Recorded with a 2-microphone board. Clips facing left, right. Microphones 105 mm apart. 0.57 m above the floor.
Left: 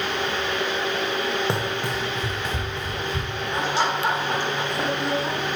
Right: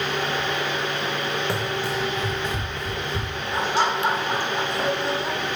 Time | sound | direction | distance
1.5 | running footsteps | 25° left (ahead or behind) | 1.2 m
3.5 | laughter | 5° right (ahead or behind) | 4 m